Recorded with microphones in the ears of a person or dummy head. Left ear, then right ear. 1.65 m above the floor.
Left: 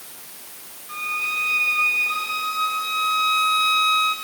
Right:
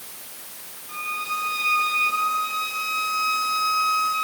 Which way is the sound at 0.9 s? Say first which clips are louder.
Left 3 dB; 20° left (ahead or behind).